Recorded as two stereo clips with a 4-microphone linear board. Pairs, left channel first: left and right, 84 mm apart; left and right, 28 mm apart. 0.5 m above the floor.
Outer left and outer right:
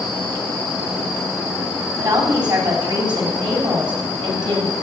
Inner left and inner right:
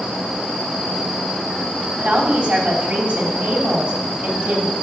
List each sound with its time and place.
2.0 s a woman speaking: 65° right (ahead or behind), 4 m